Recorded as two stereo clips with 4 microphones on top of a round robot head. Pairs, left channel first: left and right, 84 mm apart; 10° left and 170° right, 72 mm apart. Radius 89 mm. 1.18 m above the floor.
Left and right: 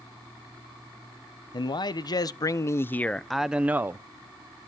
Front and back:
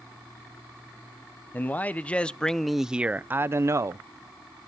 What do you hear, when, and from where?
1.5 s a man speaking: 75° left, 1.1 m; by 4.1 s 145° right, 0.8 m